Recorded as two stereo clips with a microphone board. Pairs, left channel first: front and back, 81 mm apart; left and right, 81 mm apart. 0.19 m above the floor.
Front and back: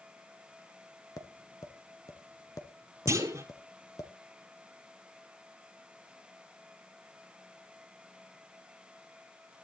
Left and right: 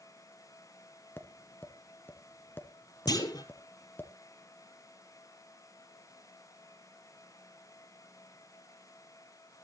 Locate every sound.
1.2 s tapping: 30° left, 1.6 m
3.1 s a clunk: 125° left, 2 m